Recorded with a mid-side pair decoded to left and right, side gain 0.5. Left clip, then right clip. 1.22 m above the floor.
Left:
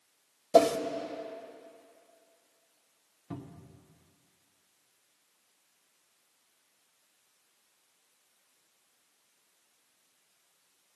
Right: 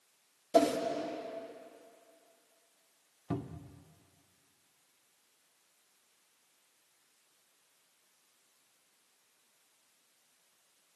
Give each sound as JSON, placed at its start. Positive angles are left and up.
{"t": 0.5, "sound": "a whoosh", "azimuth_deg": 40, "distance_m": 0.9}
{"t": 3.3, "sound": "a cupboard door", "azimuth_deg": -50, "distance_m": 0.6}